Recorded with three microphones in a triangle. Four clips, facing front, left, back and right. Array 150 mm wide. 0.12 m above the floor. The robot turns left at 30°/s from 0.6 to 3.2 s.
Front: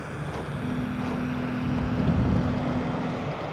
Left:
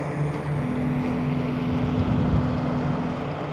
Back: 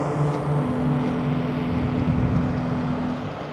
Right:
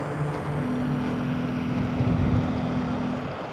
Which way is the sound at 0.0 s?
175° left.